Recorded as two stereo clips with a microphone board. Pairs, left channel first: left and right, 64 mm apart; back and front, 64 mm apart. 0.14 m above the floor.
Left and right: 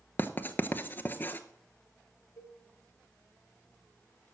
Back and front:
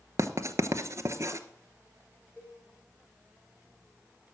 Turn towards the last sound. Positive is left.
turn(degrees=120)